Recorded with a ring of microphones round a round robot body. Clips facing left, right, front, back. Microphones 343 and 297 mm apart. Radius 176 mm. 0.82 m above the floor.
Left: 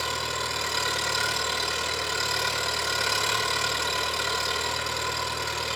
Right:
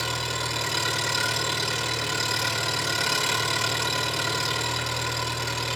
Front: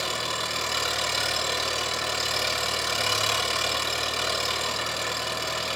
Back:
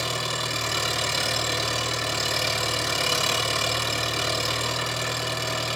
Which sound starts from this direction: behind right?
An engine running, at 0.0 s.